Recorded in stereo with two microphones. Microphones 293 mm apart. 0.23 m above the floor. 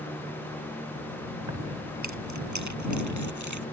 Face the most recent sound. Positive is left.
turn(degrees=-80)